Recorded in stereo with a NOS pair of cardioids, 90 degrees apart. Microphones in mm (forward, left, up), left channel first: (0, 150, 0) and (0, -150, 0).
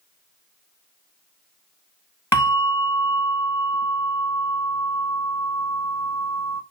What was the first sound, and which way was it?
A bell, 10° left.